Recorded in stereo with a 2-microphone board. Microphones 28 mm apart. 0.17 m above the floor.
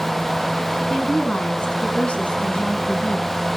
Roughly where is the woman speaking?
Left.